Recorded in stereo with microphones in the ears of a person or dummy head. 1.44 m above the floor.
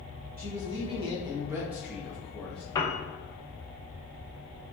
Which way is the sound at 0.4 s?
35° right (ahead or behind).